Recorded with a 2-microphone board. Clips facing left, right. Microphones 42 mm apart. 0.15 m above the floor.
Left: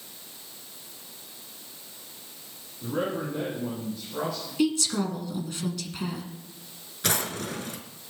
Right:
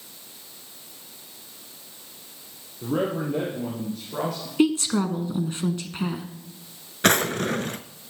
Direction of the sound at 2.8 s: 70° right (ahead or behind).